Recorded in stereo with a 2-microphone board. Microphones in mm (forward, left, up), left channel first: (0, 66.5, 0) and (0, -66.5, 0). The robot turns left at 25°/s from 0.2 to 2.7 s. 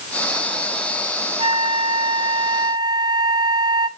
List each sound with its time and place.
1.4 s a flute: 100° right, 0.7 m; by 3.9 s 135° right, 0.7 m